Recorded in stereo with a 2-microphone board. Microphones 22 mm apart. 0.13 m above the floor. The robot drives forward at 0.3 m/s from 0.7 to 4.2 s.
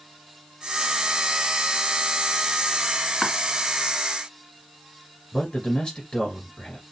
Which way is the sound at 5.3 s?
50° left (ahead or behind).